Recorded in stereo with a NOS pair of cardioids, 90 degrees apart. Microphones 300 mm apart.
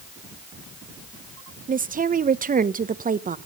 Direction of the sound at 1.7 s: 25° right.